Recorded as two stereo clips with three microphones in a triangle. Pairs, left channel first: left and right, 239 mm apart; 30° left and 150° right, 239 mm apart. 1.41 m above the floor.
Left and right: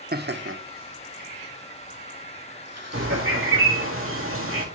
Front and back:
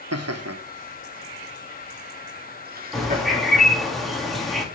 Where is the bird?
60° right, 2 m.